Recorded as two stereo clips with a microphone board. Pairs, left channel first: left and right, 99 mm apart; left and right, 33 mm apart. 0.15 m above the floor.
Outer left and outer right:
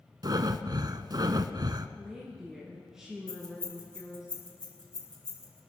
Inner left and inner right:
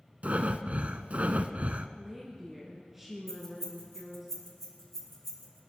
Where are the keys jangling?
10° left (ahead or behind), 7 m.